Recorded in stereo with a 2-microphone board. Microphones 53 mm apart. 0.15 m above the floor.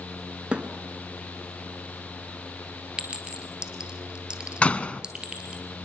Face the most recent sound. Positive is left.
turn(degrees=25)  # may be behind; listen again after turning